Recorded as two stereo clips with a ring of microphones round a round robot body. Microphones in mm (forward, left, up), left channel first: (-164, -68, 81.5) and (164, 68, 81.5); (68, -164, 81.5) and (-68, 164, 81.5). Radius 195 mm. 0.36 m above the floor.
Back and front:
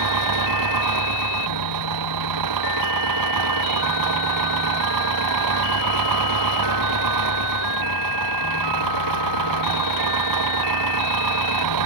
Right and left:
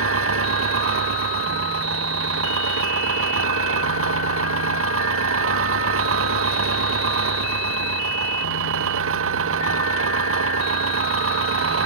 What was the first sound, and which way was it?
An engine running, 60° left.